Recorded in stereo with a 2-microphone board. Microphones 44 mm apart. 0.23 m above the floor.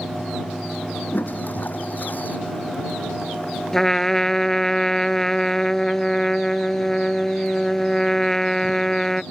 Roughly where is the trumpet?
Centre.